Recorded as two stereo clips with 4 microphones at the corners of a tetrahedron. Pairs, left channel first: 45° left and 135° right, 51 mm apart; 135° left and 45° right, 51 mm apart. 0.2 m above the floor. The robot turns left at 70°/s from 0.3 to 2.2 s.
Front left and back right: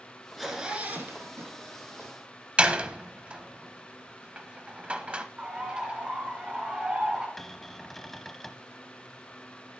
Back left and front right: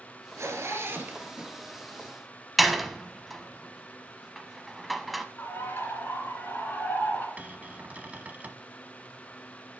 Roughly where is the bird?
Behind.